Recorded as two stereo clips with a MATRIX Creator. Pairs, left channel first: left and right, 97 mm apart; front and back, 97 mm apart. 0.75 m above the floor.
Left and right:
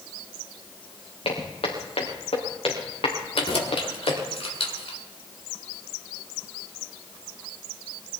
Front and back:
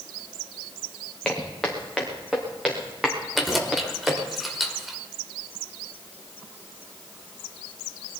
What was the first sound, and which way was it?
Footsteps, 90° left.